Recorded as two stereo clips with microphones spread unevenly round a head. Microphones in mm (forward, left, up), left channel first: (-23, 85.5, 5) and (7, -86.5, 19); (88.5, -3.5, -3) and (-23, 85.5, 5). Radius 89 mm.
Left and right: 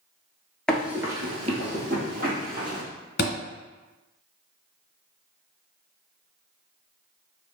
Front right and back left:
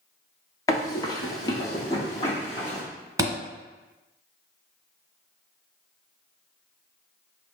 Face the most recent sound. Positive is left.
turn(degrees=90)